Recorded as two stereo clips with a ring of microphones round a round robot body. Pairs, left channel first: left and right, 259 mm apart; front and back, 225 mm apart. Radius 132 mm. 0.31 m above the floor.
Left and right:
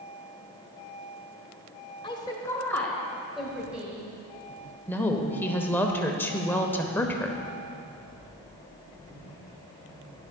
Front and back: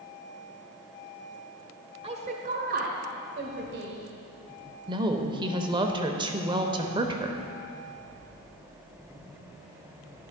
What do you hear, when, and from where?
2.0 s a woman speaking: 145° left, 1.0 m; by 4.0 s 170° right, 1.6 m
4.9 s a woman speaking: 160° left, 0.8 m